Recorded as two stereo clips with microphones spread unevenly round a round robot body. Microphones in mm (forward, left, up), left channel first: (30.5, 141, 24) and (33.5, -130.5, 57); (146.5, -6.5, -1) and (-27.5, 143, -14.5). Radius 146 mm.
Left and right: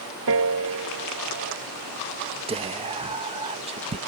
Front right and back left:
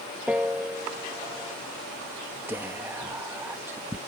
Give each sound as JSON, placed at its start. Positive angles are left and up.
{"t": 0.3, "sound": "a piano", "azimuth_deg": -135}
{"t": 2.5, "sound": "whispering", "azimuth_deg": -155}